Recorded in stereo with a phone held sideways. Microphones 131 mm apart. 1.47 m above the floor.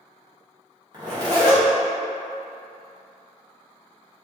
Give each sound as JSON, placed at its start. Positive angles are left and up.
{"t": 0.9, "sound": "a zipper", "side_deg": -30, "distance_m": 1.5}